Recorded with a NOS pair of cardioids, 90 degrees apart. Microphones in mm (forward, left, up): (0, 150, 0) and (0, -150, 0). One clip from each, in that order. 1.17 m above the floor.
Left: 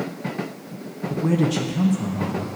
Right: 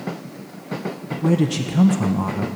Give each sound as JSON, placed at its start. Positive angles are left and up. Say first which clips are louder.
{"t": 1.1, "sound": "a man speaking", "louder": "right 1 dB", "azimuth_deg": 0, "distance_m": 0.8}